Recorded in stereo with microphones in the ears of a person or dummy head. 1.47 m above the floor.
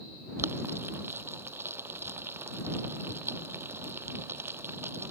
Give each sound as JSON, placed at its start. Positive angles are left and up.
{"t": 0.4, "sound": "boiling", "side_deg": -10}